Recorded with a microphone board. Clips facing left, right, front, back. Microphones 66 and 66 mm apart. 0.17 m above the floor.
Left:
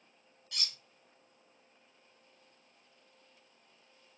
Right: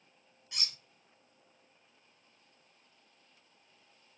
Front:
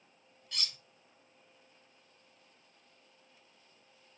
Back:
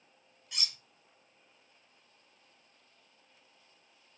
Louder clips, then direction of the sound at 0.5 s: Even, even; 120° right.